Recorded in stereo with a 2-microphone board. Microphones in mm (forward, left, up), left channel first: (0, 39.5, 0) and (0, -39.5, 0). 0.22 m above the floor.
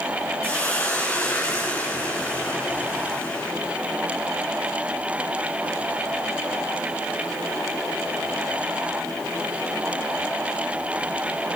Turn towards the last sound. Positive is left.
turn(degrees=25)  # may be behind; listen again after turning